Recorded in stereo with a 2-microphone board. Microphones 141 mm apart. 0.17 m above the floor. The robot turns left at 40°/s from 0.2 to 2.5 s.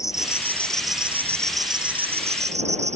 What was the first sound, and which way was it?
An insect, 25° left.